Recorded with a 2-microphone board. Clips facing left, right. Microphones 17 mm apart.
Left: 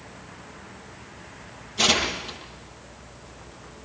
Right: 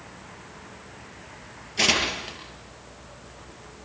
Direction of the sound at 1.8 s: 30° right (ahead or behind).